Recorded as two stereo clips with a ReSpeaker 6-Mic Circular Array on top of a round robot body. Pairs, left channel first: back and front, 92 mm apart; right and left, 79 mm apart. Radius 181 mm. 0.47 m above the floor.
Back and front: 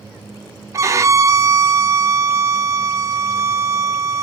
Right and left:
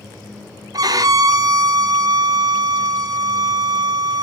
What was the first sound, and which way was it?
A violin, 55° left.